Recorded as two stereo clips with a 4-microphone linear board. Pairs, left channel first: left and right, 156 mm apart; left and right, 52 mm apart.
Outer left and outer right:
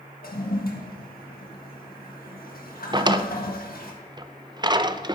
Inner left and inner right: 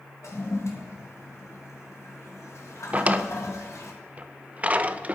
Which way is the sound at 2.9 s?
30° right (ahead or behind).